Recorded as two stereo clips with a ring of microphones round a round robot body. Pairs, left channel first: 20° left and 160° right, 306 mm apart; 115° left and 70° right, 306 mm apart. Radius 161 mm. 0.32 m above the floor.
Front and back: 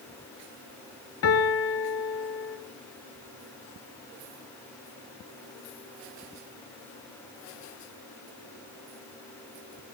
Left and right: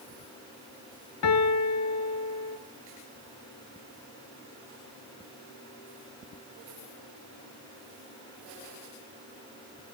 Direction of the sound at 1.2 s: 70° left.